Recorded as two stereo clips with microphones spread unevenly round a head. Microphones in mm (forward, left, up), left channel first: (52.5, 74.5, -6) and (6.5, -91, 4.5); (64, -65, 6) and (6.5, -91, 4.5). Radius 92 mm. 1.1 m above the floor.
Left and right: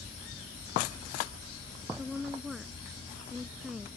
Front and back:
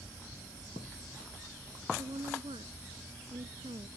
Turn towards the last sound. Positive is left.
turn(degrees=165)